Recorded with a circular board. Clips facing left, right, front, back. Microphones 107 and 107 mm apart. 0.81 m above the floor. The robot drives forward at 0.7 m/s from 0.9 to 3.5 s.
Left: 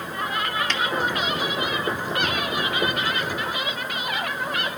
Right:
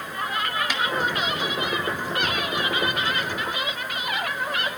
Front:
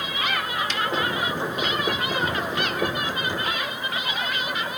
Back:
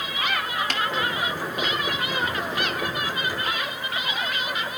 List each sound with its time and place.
0.7 s a snare drum: 170° right, 2 m